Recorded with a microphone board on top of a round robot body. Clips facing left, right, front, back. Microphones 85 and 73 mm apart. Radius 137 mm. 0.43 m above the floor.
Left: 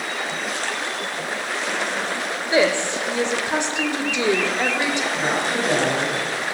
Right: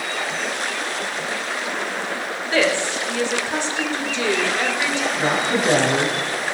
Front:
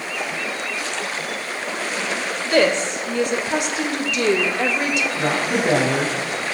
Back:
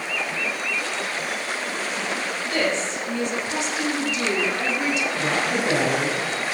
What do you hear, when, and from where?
2.5 s a woman speaking: 20° left, 1.8 m
5.2 s a woman speaking: 30° right, 4 m